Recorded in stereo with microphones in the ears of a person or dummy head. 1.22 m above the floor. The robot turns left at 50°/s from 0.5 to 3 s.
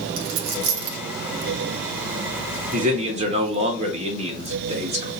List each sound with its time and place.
0.2 s a dropped coin: 70° right (ahead or behind), 1.4 m; by 1.0 s 55° right (ahead or behind), 1.4 m
2.7 s a man speaking: 50° right (ahead or behind), 1.4 m; by 5.1 s 40° right (ahead or behind), 1.4 m